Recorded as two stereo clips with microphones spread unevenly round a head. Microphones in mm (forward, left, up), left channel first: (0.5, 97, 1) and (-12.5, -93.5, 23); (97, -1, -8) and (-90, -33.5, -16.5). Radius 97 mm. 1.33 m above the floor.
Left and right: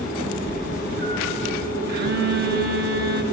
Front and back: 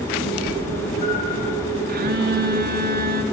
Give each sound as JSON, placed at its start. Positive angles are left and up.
{"t": 0.2, "sound": "a cat meowing", "azimuth_deg": -30, "distance_m": 9.0}
{"t": 1.9, "sound": "a phone buzzing", "azimuth_deg": -135, "distance_m": 1.9}